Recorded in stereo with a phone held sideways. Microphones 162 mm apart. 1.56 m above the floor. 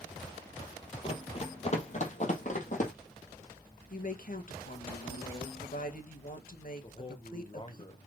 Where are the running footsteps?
35° left (ahead or behind), 2.5 m; by 2.9 s 50° left (ahead or behind), 3.5 m.